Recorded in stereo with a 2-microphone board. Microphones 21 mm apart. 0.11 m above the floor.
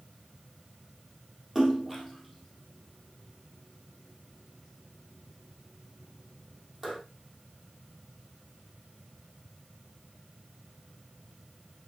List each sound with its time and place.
1.6 s a splash: 10° right (ahead or behind), 3 m